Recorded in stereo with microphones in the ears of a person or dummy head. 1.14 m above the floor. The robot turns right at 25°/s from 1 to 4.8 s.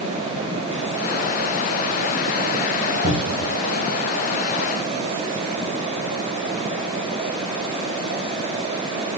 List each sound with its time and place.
3.0 s a cupboard door: 35° right (ahead or behind), 2.5 m; by 3.5 s 45° right (ahead or behind), 2.5 m